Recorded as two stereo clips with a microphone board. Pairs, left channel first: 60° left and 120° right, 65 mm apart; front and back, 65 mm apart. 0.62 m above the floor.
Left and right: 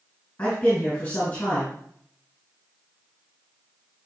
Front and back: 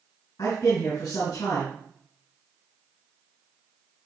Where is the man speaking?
10° right, 3.5 m.